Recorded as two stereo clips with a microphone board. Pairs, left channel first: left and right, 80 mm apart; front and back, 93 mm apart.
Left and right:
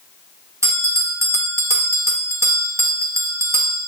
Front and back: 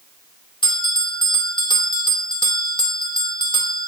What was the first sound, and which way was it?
A bell, 35° right.